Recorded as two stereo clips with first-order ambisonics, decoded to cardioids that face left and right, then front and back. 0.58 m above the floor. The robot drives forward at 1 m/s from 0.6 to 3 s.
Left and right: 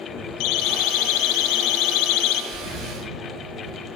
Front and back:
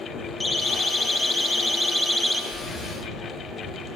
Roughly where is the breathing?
Ahead right.